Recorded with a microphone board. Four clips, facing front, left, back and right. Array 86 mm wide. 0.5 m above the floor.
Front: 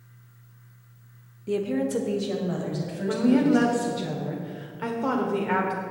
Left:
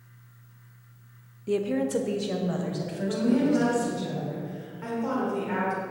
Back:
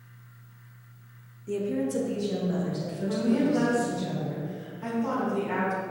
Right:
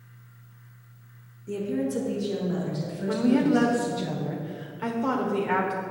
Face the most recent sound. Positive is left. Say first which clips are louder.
# right 2 dB, front 5 dB
turn(degrees=-25)